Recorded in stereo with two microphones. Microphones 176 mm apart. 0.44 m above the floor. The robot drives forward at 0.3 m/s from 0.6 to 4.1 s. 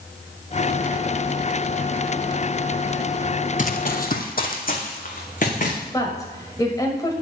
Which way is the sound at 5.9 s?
20° left (ahead or behind).